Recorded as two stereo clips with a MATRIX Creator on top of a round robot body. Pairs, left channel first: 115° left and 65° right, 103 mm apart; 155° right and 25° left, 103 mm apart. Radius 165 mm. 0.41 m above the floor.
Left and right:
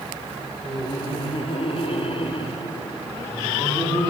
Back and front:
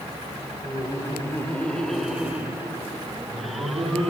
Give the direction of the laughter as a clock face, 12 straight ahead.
7 o'clock.